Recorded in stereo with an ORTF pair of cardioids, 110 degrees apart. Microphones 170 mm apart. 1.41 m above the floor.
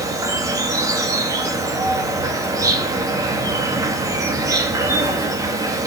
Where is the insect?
20° right, 2.5 m.